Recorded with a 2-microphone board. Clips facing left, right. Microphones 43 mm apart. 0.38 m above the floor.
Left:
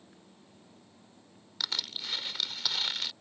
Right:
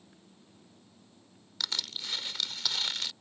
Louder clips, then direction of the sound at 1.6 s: Even; 5° left (ahead or behind).